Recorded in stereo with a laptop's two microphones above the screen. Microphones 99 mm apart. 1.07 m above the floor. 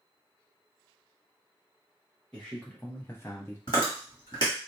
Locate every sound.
2.3 s a man speaking: 10° left (ahead or behind), 1.2 m; by 3.6 s 25° left (ahead or behind), 0.5 m
3.7 s chewing: 50° left (ahead or behind), 1.2 m